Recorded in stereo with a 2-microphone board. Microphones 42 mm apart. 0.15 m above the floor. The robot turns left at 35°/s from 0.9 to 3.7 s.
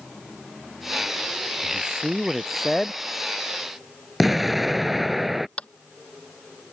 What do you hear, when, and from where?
1.6 s a man speaking: 150° right; by 3.0 s 160° left
4.2 s an explosion: 5° right (ahead or behind)
5.6 s tapping: 30° left (ahead or behind)